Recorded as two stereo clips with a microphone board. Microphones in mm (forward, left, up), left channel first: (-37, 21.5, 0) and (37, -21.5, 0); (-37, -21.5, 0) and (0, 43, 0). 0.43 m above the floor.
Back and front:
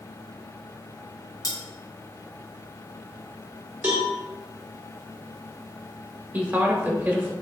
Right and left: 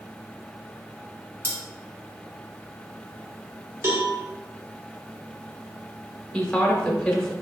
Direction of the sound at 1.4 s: 115° left.